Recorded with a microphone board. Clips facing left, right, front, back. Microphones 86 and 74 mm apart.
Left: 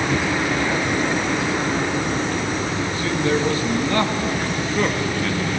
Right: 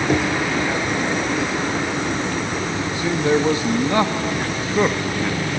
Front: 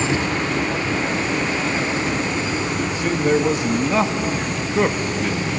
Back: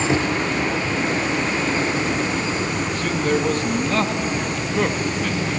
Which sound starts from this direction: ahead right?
A man speaking, at 2.9 s.